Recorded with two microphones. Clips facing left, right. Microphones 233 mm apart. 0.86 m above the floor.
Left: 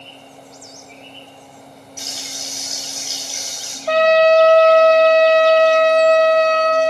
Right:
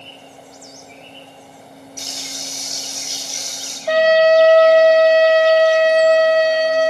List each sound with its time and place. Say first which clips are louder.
2.0 s frying: right 1 dB; 5° left (ahead or behind), 5.5 m
3.9 s a trumpet: even; 5° right (ahead or behind), 1.1 m